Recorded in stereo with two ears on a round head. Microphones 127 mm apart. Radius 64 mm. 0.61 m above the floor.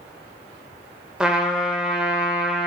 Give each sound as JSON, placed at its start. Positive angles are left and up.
{"t": 1.2, "sound": "a trumpet", "side_deg": -5, "distance_m": 0.5}